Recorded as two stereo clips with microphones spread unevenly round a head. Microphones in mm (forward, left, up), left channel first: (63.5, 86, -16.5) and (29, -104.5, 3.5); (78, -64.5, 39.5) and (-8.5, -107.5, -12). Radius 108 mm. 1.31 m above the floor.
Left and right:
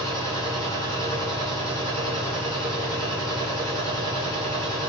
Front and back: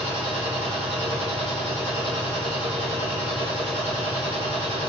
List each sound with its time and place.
0.0 s a machine running: 165° right, 4.5 m